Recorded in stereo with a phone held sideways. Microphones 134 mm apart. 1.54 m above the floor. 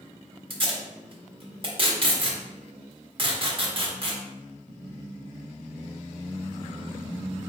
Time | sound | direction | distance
0.5 | tape being pulled | 40° right (ahead or behind) | 1.0 m